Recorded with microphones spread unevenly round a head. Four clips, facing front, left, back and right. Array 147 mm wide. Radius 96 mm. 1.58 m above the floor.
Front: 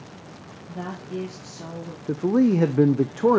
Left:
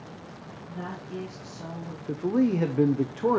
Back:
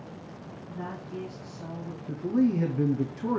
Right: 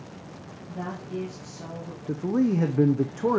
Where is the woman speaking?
Straight ahead, 2 m.